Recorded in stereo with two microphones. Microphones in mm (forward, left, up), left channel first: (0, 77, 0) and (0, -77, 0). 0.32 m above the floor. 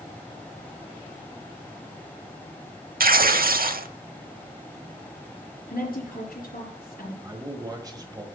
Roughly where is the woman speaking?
Left.